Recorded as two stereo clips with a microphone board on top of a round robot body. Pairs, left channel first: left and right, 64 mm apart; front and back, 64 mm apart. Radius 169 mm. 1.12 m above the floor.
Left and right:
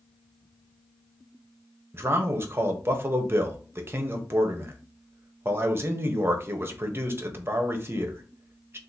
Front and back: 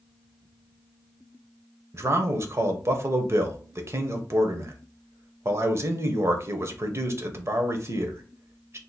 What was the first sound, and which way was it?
A man speaking, 135° right.